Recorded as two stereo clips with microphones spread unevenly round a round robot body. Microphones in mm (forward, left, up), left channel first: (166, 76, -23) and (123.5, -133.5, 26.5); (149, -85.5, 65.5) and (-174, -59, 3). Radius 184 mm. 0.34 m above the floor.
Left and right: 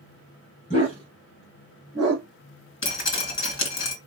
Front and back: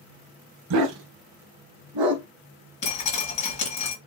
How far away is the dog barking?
About 0.8 m.